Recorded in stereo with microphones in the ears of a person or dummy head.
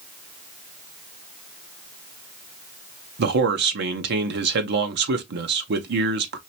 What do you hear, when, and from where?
3.2 s a man speaking: 60° right (ahead or behind), 0.9 m